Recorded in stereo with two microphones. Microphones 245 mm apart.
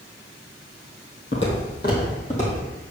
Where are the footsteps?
50° left (ahead or behind), 2.5 m; by 2.6 s 25° left (ahead or behind), 3.5 m.